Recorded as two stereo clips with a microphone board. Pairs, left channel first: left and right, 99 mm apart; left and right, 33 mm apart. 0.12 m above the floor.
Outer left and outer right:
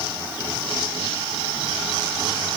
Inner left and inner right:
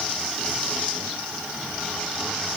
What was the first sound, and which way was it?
Only background noise.